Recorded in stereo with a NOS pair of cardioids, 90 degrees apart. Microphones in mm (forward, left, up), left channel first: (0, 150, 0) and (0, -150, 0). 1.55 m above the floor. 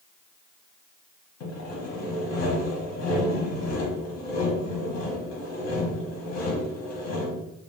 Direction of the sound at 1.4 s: 60° left.